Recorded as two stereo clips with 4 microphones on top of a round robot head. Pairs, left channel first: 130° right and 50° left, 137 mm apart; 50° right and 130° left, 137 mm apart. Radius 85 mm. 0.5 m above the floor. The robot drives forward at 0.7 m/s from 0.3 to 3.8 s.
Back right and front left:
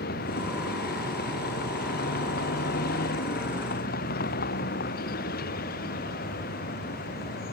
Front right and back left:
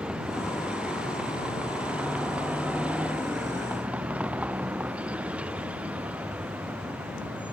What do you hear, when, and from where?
0.0 s a vehicle: 145° right